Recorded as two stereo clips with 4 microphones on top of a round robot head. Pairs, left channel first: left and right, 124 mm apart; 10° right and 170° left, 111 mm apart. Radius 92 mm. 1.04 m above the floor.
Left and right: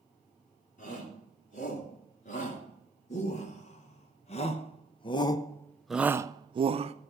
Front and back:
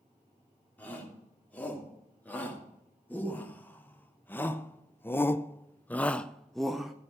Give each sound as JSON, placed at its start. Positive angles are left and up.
{"t": 0.8, "sound": "a shout", "azimuth_deg": 65, "distance_m": 3.0}